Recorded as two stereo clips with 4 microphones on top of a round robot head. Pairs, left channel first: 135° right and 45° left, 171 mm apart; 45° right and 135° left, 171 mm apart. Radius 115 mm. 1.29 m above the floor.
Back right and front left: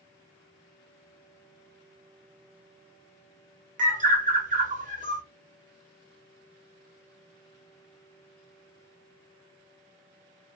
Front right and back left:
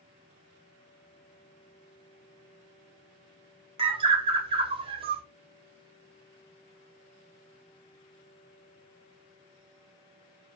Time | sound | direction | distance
3.8 | a bird | 80° left | 0.8 m